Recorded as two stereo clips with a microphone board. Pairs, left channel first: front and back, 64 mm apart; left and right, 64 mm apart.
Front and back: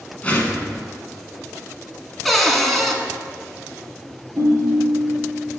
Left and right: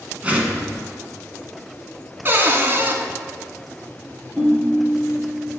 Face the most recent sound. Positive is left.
turn(degrees=-150)